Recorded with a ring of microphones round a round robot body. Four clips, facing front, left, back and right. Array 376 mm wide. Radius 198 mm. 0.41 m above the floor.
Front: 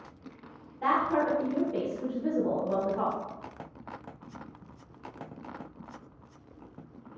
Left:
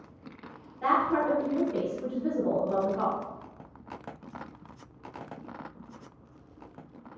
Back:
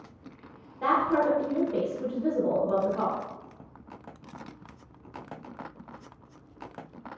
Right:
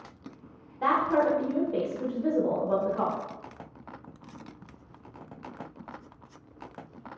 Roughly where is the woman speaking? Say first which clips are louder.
Right 1 dB, back 2 dB; behind right.